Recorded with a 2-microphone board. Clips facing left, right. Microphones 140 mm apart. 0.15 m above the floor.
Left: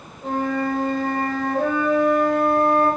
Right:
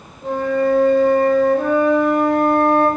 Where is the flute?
30° right (ahead or behind), 1.8 m.